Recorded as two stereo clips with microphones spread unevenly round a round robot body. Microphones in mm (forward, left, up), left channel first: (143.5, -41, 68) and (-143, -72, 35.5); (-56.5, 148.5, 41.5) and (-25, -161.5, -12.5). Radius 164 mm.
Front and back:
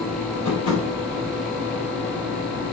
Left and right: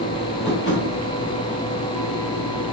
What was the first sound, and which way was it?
Tapping, 35° left.